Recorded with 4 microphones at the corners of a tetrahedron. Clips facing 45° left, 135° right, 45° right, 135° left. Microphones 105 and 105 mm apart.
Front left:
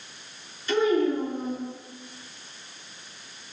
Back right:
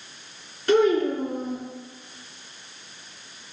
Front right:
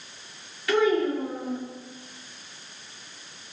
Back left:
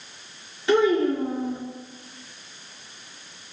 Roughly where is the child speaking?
Behind.